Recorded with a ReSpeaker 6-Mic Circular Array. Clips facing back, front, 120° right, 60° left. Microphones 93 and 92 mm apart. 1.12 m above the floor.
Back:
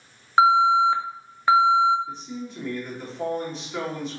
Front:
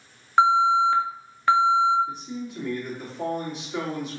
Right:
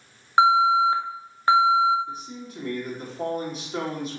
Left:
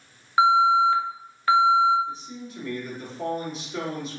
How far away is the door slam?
No door slam in this recording.